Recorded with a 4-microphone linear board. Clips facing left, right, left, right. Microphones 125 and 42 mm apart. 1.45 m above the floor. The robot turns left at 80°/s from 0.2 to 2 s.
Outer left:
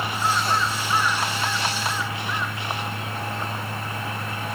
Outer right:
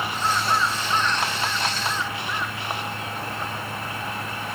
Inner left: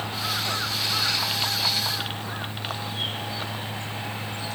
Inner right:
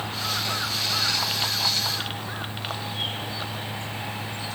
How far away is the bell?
No bell in this recording.